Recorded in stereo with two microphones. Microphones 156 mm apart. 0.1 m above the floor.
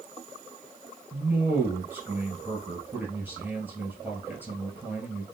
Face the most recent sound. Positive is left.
turn(degrees=-10)  # may be behind; listen again after turning